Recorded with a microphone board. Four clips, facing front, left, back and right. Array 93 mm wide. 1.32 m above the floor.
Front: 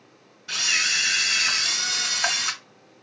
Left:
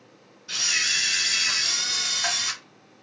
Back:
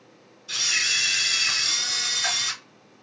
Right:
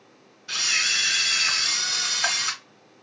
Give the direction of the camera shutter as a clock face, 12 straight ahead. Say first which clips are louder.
Right 1 dB, front 2 dB; 1 o'clock.